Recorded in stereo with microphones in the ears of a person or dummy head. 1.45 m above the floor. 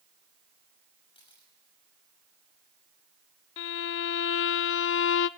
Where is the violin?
70° left (ahead or behind), 0.5 m.